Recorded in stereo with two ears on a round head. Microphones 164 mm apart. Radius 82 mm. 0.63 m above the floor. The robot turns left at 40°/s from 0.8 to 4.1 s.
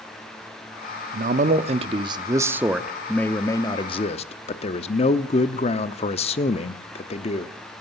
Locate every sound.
1.1 s a man speaking: 110° right, 0.9 m; by 7.5 s 135° left, 0.9 m